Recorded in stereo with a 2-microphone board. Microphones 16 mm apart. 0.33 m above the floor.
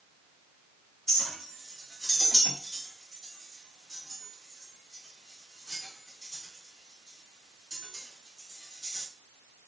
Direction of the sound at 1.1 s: 25° left (ahead or behind).